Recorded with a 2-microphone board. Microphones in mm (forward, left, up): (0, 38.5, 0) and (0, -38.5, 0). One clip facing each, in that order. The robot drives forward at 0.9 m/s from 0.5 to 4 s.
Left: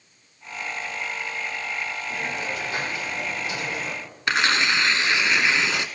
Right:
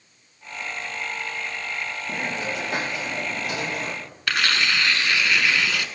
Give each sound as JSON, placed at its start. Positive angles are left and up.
{"t": 2.1, "sound": "a hiss", "side_deg": -75, "distance_m": 4.5}
{"t": 4.3, "sound": "tearing paper", "side_deg": 25, "distance_m": 0.6}